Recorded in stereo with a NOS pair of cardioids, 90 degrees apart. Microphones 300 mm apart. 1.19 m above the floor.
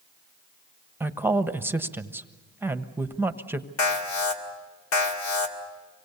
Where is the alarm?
70° left, 3 m.